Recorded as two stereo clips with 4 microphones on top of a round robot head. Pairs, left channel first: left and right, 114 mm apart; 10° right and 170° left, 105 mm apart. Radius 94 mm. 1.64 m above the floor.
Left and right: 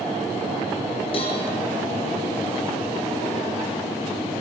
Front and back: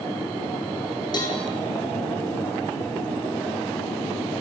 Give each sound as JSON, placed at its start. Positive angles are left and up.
{"t": 1.1, "sound": "a cowbell", "azimuth_deg": 40, "distance_m": 5.0}